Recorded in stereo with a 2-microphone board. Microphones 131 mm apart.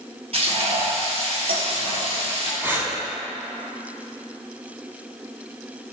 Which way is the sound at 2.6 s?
20° right (ahead or behind).